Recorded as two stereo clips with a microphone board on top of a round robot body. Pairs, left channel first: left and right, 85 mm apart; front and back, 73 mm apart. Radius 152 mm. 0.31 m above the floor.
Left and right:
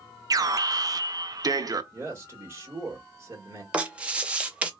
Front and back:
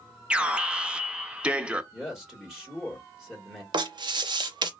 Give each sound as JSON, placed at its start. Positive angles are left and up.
{"t": 0.3, "sound": "an alarm", "azimuth_deg": -110, "distance_m": 0.7}
{"t": 1.9, "sound": "a man speaking", "azimuth_deg": -100, "distance_m": 1.6}
{"t": 3.7, "sound": "writing", "azimuth_deg": -170, "distance_m": 0.6}